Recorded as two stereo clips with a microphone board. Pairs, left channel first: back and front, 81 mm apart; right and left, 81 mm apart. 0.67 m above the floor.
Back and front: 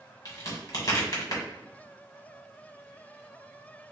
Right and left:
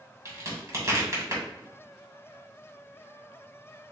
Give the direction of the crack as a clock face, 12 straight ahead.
7 o'clock.